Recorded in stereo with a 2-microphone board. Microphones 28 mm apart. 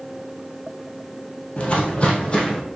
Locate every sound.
1.6 s footsteps: 40° left (ahead or behind), 1.2 m; by 2.6 s 25° left (ahead or behind), 1.7 m